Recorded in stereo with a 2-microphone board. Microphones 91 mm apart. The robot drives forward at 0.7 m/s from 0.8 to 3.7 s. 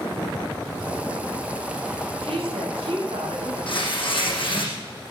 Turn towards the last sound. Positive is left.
turn(degrees=65)  # may be behind; listen again after turning